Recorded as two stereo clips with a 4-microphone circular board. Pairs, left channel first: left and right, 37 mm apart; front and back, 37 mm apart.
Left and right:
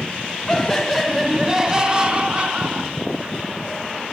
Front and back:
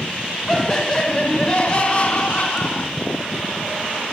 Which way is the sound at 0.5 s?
45° left.